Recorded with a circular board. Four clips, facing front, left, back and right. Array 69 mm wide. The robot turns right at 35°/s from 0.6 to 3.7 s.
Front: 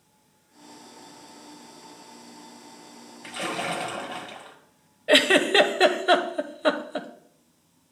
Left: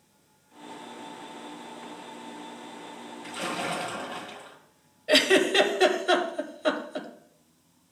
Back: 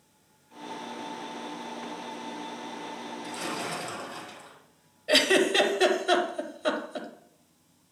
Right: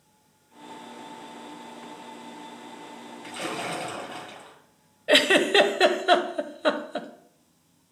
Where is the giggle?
40° right, 0.6 m.